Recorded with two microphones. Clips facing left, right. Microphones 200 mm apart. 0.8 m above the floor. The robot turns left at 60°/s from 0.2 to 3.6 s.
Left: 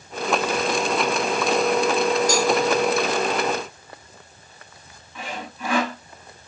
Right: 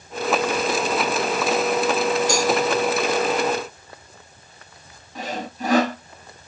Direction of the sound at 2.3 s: 20° left (ahead or behind).